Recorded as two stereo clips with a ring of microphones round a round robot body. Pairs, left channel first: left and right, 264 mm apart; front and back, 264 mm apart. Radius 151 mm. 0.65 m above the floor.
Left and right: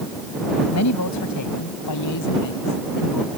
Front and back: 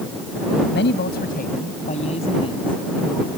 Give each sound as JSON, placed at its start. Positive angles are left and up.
{"t": 0.7, "sound": "a man speaking", "azimuth_deg": 55}